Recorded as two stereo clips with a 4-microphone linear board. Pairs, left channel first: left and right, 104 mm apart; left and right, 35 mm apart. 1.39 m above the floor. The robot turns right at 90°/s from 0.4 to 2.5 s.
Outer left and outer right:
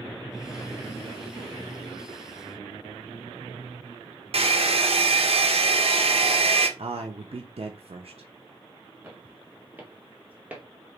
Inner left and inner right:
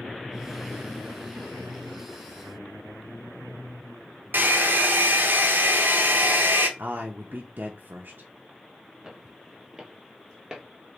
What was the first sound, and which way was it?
A hair dryer, 65° right (ahead or behind).